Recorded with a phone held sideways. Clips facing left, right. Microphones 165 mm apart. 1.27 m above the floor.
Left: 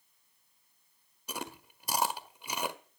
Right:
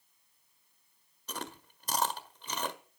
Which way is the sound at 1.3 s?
10° left (ahead or behind).